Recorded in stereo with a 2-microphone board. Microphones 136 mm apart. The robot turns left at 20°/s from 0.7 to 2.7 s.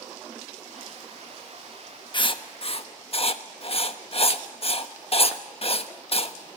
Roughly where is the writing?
Left.